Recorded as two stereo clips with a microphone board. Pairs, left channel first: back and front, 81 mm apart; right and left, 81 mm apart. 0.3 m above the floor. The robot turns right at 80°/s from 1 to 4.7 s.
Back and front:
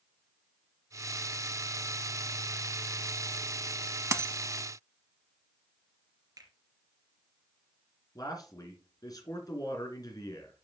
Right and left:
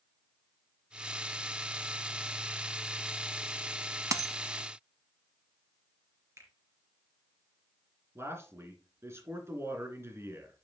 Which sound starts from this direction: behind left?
A man speaking, at 8.2 s.